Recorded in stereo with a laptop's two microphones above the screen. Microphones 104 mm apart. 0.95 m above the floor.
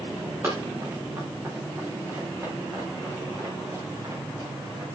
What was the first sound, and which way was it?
Running footsteps, 20° right (ahead or behind).